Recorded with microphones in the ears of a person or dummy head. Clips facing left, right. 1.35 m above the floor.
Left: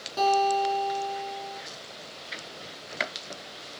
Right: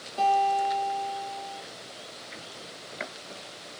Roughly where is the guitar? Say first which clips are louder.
Left 1 dB; left.